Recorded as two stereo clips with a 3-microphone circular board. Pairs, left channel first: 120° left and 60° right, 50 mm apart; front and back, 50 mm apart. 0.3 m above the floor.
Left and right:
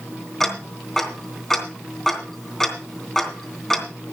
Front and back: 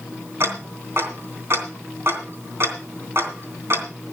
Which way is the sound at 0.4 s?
155° right.